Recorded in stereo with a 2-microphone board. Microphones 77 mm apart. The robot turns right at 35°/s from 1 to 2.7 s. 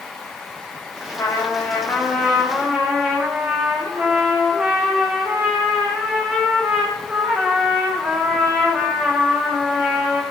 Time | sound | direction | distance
1.1 | a trumpet | 135° left | 6.5 m